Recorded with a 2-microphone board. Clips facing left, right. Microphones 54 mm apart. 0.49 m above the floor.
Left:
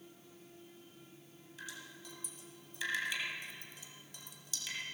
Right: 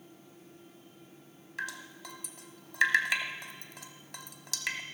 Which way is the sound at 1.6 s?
75° right (ahead or behind).